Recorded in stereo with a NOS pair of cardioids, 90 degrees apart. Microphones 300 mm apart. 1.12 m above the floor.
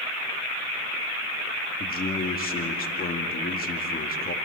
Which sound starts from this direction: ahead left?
A man speaking, at 1.8 s.